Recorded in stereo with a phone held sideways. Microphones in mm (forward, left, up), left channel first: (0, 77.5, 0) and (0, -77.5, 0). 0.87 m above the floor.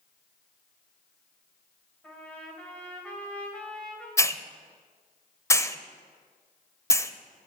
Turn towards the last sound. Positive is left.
turn(degrees=20)  # may be behind; listen again after turning